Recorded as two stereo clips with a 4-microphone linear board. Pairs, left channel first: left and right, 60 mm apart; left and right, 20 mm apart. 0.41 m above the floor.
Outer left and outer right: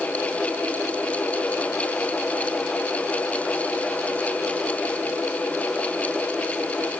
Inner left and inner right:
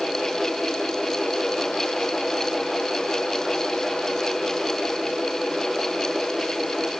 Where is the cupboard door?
No cupboard door in this recording.